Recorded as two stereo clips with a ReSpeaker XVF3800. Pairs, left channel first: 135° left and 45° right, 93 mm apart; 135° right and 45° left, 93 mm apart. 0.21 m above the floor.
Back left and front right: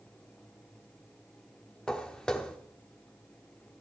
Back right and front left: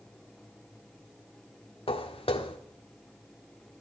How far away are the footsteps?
About 1.3 m.